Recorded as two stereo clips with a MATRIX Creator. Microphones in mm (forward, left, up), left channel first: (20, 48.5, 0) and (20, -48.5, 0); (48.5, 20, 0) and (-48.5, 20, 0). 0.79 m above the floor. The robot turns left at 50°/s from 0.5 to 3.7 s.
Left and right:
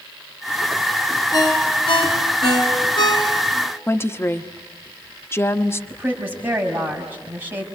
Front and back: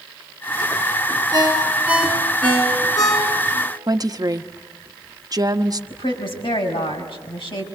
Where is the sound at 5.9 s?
25° right, 5.5 m.